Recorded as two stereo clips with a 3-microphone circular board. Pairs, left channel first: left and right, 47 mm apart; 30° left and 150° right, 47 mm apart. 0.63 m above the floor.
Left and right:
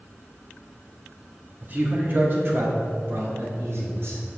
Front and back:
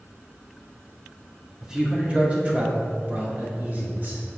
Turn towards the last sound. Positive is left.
turn(degrees=-115)